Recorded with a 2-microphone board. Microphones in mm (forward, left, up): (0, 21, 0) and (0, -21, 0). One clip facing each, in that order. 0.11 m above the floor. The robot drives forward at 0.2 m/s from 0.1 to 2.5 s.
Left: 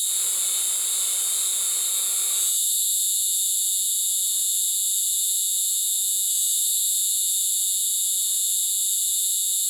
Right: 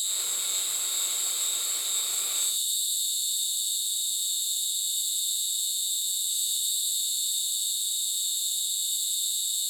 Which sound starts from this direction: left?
An insect, at 0.0 s.